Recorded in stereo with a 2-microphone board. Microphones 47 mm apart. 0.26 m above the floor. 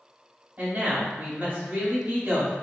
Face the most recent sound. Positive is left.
turn(degrees=-30)  # may be behind; listen again after turning